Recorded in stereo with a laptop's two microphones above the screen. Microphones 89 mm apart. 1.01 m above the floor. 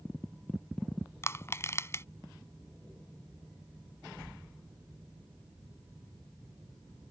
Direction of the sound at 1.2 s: 30° left (ahead or behind).